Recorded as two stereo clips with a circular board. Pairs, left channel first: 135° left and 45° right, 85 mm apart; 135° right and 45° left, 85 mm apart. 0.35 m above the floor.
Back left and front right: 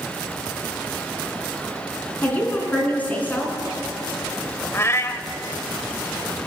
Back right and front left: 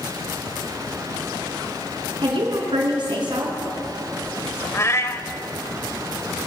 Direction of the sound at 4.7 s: Straight behind.